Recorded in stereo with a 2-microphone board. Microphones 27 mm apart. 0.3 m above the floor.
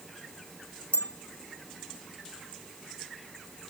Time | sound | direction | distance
0.9 | a bell | 75° left (ahead or behind) | ?